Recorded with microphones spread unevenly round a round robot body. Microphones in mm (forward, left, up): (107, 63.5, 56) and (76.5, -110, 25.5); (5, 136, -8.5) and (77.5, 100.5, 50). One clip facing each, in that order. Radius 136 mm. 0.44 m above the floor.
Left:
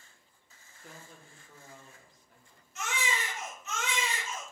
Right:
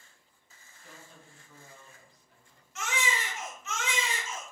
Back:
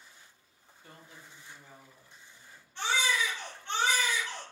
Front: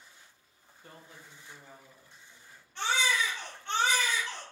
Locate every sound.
0.8 s a woman speaking: 50° left, 1.1 m
2.8 s a baby crying: 95° right, 1.2 m